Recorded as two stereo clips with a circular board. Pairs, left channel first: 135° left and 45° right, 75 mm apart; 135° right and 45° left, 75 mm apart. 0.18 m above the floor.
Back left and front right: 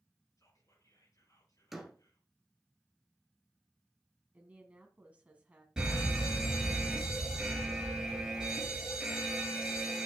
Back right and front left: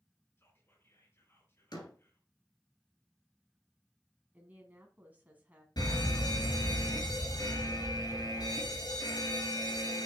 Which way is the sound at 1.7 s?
130° right.